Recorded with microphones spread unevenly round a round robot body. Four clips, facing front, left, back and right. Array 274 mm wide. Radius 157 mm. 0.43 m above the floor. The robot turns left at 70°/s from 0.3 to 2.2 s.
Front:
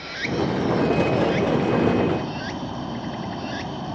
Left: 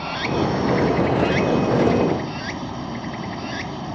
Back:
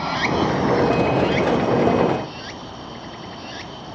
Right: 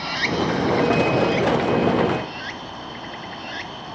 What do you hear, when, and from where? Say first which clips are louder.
0.0 s running water: left 1 dB, back 5 dB; straight behind; by 4.0 s 45° left